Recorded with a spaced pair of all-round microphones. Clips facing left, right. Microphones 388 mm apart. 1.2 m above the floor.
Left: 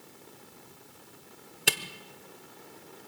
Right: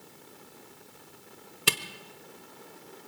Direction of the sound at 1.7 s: 10° right (ahead or behind).